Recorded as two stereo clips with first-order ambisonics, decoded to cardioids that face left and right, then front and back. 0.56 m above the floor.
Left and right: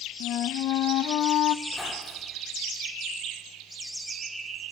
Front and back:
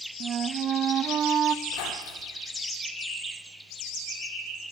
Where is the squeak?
5° left, 6 m.